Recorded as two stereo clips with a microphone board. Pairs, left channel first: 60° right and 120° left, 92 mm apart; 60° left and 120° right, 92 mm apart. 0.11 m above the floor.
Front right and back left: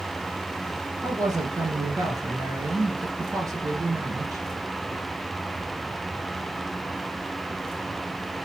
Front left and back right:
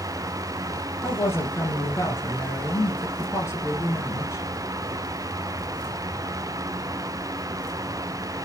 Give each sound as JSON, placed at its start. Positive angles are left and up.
{"t": 1.0, "sound": "a woman speaking", "azimuth_deg": 100, "distance_m": 2.0}